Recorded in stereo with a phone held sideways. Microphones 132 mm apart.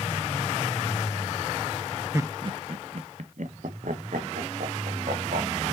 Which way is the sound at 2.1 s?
20° right (ahead or behind).